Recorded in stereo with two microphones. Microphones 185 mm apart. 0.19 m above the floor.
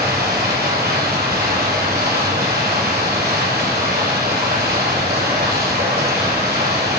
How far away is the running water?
About 4 m.